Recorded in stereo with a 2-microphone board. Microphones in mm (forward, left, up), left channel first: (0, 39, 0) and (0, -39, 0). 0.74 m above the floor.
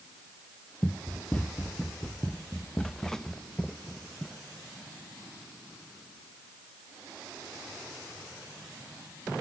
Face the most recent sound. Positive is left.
turn(degrees=5)  # may be behind; listen again after turning